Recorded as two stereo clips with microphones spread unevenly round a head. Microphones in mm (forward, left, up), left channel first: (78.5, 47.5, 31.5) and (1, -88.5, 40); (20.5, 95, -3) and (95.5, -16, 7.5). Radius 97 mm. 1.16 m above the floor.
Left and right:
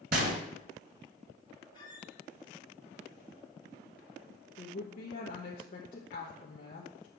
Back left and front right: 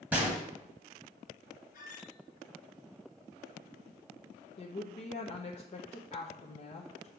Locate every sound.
0.1 s a gunshot: 130° right, 1.3 m
1.7 s a squeak: 130° left, 2.5 m
4.6 s a woman speaking: 100° left, 1.1 m